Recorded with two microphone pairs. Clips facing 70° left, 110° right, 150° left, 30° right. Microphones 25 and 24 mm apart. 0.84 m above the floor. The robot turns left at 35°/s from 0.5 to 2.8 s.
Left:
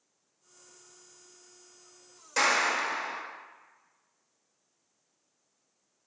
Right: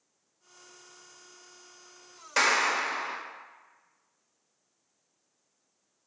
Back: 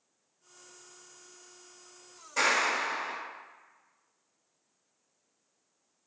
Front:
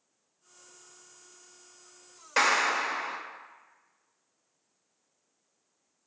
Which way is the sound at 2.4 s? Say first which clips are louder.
Right 1 dB, front 2 dB; 50° right.